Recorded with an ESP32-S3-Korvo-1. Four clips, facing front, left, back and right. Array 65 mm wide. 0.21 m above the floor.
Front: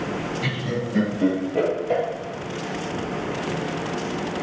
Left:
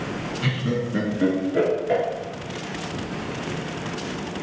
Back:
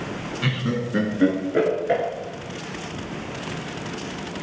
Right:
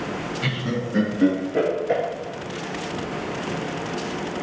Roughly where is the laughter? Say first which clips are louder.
Left 3 dB, back 1 dB; behind.